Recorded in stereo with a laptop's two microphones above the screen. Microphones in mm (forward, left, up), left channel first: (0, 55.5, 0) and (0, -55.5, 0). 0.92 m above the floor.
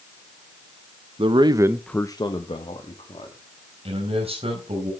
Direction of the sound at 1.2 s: 55° right (ahead or behind).